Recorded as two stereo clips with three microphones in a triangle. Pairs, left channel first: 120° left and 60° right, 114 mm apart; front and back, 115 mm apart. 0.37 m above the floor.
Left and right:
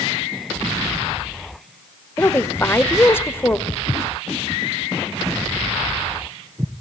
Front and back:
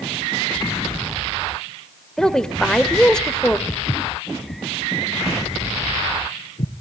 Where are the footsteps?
70° left, 0.8 m; by 6.7 s 10° left, 1.9 m.